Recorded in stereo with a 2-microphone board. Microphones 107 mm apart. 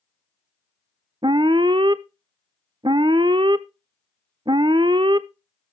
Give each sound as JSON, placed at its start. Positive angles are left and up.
{"t": 1.2, "sound": "an alarm", "side_deg": -45, "distance_m": 0.5}